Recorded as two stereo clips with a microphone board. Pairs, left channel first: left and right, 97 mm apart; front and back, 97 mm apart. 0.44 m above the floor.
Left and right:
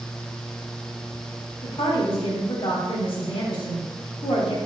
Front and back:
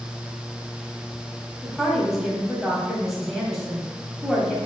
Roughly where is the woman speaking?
Left.